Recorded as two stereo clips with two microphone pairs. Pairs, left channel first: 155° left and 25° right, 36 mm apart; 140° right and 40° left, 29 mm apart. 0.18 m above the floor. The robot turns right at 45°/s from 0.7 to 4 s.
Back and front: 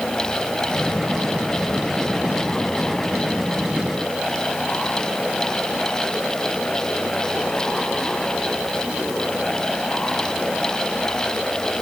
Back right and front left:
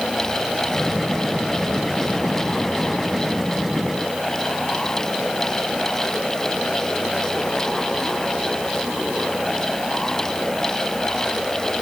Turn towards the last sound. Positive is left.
No sound to turn to.